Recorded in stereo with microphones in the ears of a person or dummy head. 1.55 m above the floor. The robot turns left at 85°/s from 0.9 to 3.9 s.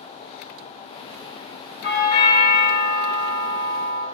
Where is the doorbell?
130° left, 1.1 m; by 4.0 s 50° right, 1.1 m.